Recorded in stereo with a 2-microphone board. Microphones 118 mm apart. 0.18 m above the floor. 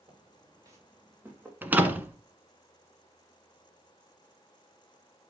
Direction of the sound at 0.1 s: 40° right (ahead or behind).